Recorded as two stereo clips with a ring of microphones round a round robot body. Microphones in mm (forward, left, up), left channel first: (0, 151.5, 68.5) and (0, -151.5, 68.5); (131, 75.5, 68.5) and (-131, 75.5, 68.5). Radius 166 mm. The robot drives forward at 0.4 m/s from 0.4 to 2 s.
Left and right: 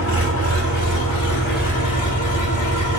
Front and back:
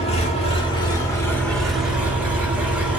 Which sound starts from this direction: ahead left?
An engine running, at 0.0 s.